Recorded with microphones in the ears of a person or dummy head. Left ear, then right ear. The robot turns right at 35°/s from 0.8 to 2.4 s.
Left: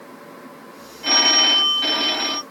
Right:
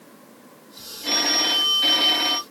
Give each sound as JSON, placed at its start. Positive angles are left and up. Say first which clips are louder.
{"t": 1.0, "sound": "a phone ringing", "louder": "left 6 dB", "azimuth_deg": 130, "distance_m": 1.2}